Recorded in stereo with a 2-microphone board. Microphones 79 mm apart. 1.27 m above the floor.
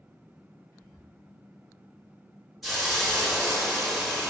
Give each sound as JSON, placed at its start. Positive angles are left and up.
{"t": 0.7, "sound": "whispering", "side_deg": 35, "distance_m": 1.7}
{"t": 2.6, "sound": "a hiss", "side_deg": 0, "distance_m": 1.0}